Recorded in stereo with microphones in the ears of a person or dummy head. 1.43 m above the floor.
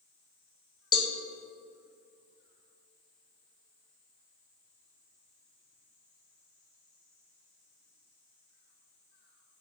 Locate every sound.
0.9 s a cowbell: 25° left (ahead or behind), 0.6 m